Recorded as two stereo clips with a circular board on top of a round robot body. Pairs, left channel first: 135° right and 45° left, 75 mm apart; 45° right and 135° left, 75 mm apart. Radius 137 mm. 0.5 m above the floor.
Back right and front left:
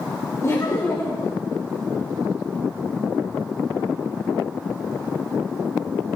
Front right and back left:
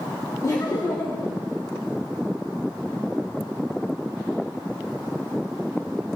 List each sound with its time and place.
0.4 s laughter: 85° right, 2.5 m